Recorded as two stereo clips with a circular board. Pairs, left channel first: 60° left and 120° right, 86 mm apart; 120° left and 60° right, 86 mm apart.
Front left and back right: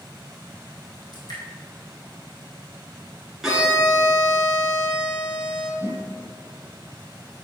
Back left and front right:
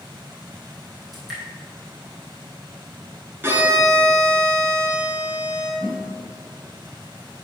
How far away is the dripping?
About 2 m.